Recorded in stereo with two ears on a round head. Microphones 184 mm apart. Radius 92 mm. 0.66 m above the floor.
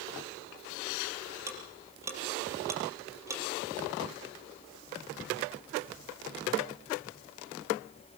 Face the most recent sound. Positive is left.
turn(degrees=-15)  # may be behind; listen again after turning